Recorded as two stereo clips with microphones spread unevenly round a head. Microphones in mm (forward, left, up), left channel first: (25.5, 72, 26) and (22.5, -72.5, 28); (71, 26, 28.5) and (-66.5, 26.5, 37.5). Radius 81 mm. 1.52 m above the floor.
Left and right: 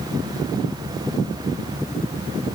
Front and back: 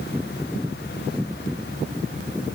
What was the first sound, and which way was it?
Only background noise.